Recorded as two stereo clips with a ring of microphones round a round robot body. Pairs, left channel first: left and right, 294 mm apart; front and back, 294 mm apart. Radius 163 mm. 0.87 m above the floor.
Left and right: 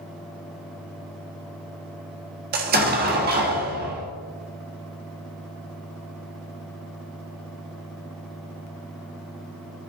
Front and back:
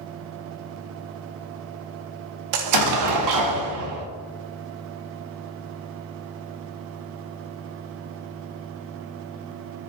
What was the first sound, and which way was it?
An explosion, 150° right.